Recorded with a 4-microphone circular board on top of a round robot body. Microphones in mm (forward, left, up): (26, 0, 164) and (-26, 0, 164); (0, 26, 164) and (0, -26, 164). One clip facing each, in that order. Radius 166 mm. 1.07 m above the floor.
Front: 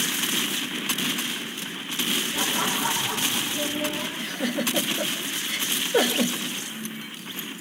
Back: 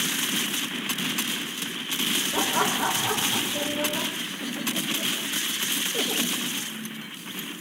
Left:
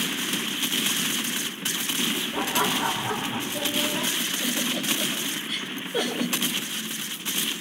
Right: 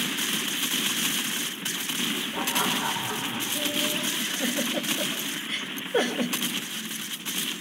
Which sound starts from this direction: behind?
Laughter, at 2.3 s.